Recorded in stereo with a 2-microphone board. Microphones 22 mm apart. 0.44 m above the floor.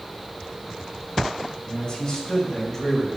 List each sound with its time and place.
1.7 s a man speaking: 30° left (ahead or behind), 3 m; by 3.1 s 5° left (ahead or behind), 1.6 m